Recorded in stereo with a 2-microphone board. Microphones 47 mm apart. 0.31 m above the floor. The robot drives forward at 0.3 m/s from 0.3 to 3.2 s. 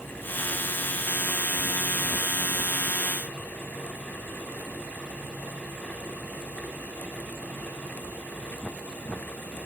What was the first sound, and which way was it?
Only background noise.